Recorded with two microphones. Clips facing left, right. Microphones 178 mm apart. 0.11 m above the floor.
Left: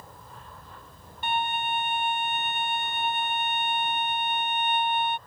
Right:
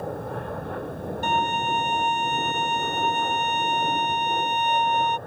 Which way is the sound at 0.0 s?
60° right (ahead or behind).